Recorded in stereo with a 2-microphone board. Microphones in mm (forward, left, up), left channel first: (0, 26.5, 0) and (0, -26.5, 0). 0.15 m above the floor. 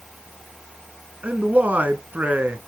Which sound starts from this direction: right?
A man speaking, at 1.2 s.